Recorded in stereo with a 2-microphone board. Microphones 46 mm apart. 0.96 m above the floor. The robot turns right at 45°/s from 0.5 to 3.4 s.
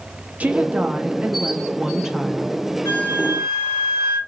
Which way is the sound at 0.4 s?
30° right (ahead or behind).